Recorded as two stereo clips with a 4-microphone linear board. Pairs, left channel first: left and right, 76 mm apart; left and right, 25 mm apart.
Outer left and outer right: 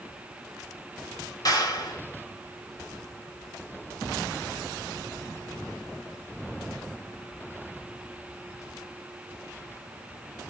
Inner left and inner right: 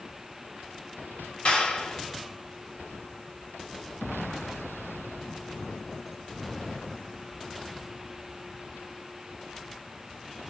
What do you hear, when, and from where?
1.4 s a clap: 55° left (ahead or behind), 2 m